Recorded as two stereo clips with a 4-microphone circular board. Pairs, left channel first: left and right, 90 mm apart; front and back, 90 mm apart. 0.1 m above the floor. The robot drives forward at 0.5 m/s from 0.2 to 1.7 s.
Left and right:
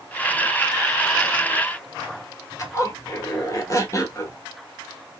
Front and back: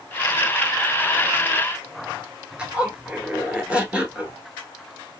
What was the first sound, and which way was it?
A zipper, 110° left.